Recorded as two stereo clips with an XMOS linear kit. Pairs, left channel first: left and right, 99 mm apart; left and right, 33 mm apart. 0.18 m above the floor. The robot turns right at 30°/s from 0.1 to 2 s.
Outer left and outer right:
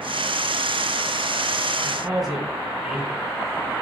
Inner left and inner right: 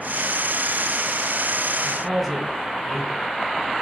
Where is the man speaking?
10° right (ahead or behind), 1.4 m; by 3.3 s 5° right (ahead or behind), 1.4 m.